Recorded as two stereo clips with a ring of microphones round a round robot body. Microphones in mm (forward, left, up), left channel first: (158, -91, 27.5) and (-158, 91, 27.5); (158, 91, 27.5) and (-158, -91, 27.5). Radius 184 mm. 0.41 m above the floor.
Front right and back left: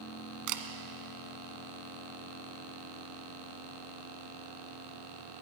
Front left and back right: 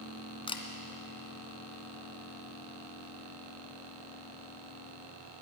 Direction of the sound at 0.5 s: 105° left.